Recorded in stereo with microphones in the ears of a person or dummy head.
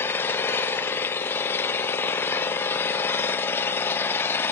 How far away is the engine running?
About 0.8 m.